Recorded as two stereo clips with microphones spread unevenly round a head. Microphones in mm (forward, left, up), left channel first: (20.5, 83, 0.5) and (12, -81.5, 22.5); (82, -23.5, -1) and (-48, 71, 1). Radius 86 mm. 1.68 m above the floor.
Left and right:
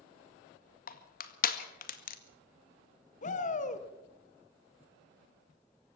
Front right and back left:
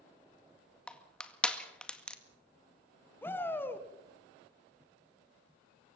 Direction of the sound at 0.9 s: 50° left.